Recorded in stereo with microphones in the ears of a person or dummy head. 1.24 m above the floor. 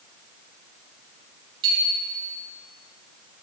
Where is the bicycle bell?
30° right (ahead or behind), 6.5 m.